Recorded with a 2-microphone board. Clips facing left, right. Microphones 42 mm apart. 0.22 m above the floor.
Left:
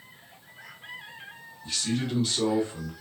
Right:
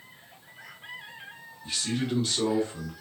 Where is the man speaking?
25° right (ahead or behind), 1.4 m; by 2.9 s 20° left (ahead or behind), 1.7 m.